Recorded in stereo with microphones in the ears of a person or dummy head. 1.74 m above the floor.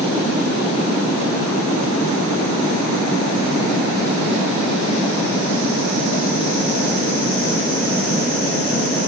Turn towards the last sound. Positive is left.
No sound to turn to.